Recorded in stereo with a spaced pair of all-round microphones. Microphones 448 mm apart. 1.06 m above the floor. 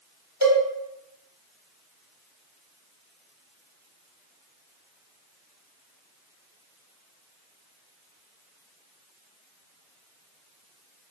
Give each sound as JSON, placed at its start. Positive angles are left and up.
{"t": 0.4, "sound": "a cowbell", "side_deg": -35, "distance_m": 1.0}